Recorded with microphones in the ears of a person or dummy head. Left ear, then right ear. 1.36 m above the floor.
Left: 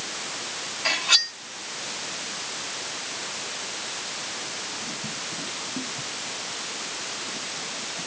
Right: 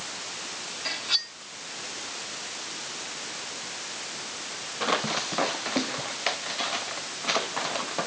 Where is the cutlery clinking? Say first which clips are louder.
Left 7 dB; 25° left (ahead or behind).